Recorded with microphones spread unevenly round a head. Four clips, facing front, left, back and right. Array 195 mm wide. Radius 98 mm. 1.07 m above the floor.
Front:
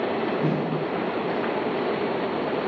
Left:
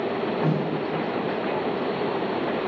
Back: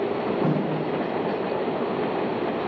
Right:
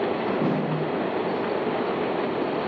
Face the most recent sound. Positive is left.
turn(degrees=-90)